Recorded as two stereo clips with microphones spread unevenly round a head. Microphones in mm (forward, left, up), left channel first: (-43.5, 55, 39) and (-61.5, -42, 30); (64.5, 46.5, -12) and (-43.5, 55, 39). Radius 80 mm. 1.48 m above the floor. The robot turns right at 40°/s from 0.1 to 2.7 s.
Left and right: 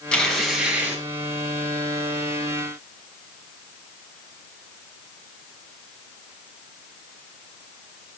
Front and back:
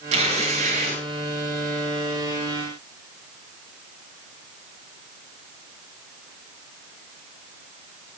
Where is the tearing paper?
160° left, 5.5 m; by 1.0 s 165° right, 5.5 m.